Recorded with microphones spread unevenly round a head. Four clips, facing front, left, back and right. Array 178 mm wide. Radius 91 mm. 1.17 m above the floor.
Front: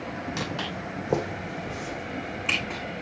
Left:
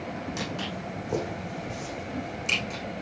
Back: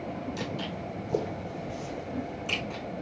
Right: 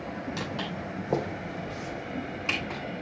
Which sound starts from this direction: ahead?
Footsteps, at 0.4 s.